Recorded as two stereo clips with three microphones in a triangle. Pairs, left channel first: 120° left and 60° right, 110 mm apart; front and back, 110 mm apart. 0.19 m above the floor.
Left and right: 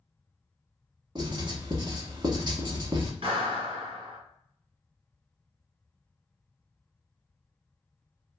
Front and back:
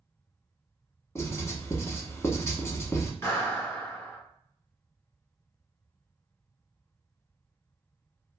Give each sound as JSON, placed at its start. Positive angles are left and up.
{"t": 1.1, "sound": "writing", "azimuth_deg": -50, "distance_m": 0.6}
{"t": 3.2, "sound": "a clap", "azimuth_deg": -65, "distance_m": 1.7}